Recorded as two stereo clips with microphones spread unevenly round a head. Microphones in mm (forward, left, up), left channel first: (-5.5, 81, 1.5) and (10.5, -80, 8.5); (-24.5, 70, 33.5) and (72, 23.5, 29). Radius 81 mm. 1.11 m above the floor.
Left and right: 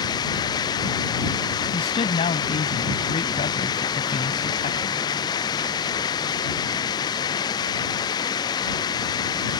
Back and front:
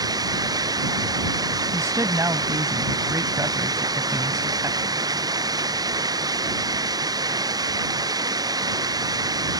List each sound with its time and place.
0.0 s running water: 30° left
1.7 s a man speaking: 40° left